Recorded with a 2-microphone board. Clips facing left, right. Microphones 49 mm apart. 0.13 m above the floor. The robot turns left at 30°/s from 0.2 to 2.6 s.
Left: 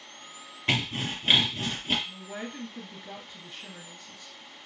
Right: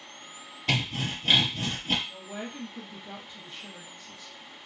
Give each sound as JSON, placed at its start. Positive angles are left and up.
{"t": 0.7, "sound": "sawing", "azimuth_deg": 45, "distance_m": 1.8}
{"t": 2.1, "sound": "a woman speaking", "side_deg": 30, "distance_m": 1.8}